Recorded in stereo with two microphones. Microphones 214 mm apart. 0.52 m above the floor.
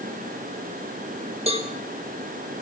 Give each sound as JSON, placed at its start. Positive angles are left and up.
{"t": 1.5, "sound": "a cowbell", "side_deg": -30, "distance_m": 1.0}